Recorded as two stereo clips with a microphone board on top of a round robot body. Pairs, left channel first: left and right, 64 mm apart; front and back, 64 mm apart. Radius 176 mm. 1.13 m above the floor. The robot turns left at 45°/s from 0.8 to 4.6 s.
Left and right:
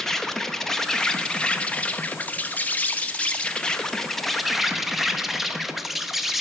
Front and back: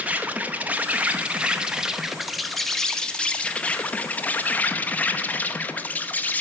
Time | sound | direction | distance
0.0 | an insect | 165° left | 0.8 m